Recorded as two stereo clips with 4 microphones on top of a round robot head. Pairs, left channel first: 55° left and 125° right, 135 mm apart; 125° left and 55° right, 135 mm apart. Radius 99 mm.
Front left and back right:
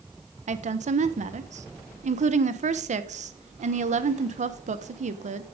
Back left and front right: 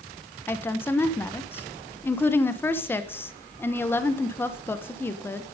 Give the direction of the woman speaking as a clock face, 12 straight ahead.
5 o'clock.